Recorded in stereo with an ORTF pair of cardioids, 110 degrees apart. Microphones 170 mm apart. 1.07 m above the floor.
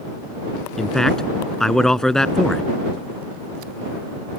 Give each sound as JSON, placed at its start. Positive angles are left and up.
{"t": 0.8, "sound": "a man speaking", "azimuth_deg": 5}